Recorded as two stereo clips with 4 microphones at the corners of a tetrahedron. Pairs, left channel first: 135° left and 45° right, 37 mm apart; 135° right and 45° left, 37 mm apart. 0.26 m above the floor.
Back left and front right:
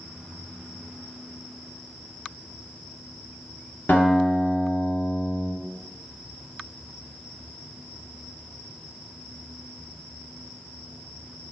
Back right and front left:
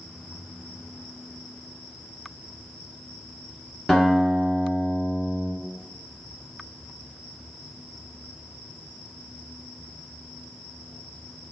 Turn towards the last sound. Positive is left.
turn(degrees=140)